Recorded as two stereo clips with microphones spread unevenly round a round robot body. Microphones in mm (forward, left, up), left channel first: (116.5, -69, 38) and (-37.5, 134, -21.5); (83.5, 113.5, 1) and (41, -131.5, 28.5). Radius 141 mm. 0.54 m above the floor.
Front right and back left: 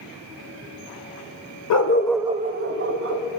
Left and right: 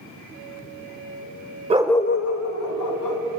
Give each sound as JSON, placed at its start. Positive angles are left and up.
{"t": 1.7, "sound": "a dog barking", "azimuth_deg": -30, "distance_m": 0.7}